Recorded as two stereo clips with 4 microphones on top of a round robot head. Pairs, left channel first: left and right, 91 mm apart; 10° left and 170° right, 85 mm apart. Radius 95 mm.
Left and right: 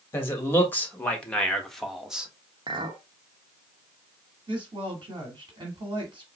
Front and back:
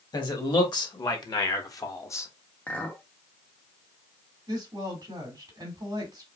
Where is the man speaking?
30° left, 2 m; by 2.3 s 20° right, 1.3 m.